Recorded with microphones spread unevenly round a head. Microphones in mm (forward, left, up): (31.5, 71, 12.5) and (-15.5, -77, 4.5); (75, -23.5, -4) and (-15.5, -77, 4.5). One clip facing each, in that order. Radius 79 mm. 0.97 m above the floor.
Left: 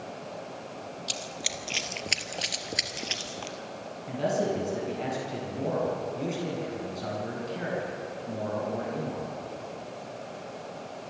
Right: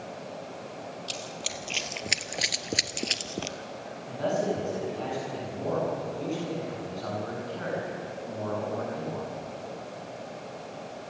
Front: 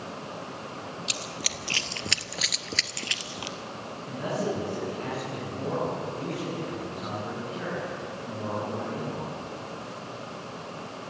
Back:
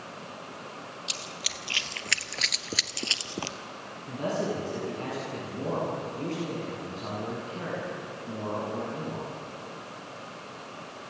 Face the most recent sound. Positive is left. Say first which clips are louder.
# even, even
turn(degrees=140)